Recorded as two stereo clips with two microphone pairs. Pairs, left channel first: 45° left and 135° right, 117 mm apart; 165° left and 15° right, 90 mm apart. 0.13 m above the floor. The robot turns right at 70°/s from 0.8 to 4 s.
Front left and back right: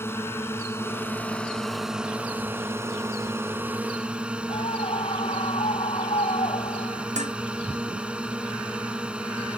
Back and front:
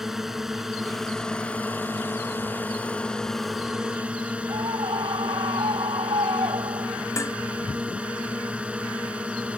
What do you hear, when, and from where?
0.0 s a drone: 70° left; by 9.6 s 65° right
4.5 s a scream: 10° left
7.2 s dishes clattering: 135° right